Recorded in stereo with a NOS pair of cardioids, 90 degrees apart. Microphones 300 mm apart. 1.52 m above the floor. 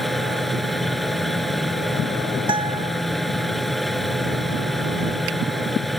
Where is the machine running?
Straight ahead.